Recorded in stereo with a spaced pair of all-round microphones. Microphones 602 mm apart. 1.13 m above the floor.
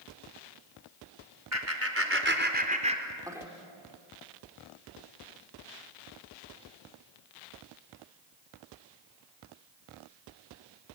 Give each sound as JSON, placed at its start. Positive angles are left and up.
{"t": 1.5, "sound": "laughter", "side_deg": -25, "distance_m": 4.5}